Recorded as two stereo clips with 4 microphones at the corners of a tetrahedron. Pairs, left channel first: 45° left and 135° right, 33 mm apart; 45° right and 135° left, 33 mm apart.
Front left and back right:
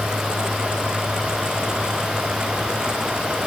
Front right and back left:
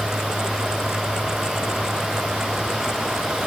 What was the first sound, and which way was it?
Only background noise.